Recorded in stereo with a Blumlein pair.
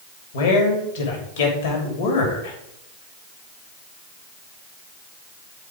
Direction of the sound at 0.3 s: 55° left.